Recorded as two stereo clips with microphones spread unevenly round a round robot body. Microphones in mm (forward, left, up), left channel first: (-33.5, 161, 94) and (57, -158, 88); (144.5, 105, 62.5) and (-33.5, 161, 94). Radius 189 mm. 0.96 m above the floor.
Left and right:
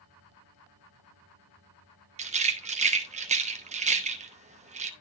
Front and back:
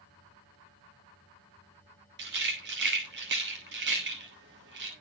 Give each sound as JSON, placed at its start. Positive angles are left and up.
{"t": 2.2, "sound": "a rattle", "azimuth_deg": -145, "distance_m": 0.8}